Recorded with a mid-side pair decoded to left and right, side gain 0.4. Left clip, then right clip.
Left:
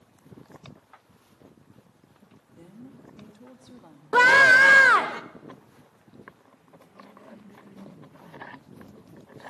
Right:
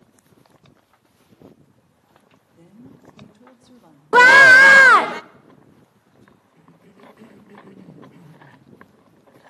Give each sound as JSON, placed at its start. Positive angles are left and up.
{"t": 2.5, "sound": "a woman speaking", "azimuth_deg": 0, "distance_m": 4.0}
{"t": 4.1, "sound": "a scream", "azimuth_deg": -55, "distance_m": 1.0}
{"t": 6.5, "sound": "a cough", "azimuth_deg": -65, "distance_m": 5.5}